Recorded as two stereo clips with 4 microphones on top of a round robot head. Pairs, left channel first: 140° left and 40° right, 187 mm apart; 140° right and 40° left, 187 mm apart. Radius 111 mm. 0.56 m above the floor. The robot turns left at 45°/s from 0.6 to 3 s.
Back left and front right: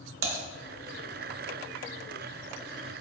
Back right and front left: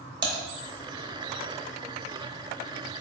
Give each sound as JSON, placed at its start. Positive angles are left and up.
{"t": 0.2, "sound": "typing on a keyboard", "azimuth_deg": -25, "distance_m": 0.6}